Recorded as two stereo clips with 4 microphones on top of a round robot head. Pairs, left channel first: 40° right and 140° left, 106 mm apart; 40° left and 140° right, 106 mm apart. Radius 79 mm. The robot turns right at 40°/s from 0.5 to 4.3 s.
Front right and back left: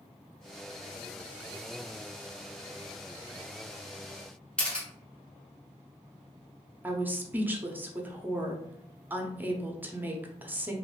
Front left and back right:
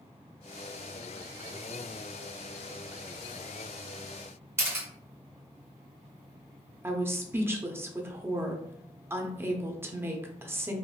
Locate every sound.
4.6 s a camera shutter: 110° right, 1.4 m
6.8 s a woman speaking: 170° right, 0.7 m